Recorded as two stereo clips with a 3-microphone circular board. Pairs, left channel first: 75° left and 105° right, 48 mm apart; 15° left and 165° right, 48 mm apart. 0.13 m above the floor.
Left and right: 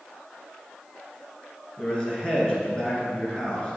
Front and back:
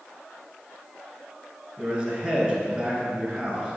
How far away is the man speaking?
About 1.9 m.